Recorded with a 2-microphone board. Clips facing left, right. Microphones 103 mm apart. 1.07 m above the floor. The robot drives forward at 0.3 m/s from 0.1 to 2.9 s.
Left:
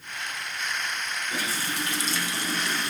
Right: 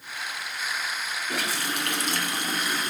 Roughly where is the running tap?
Right.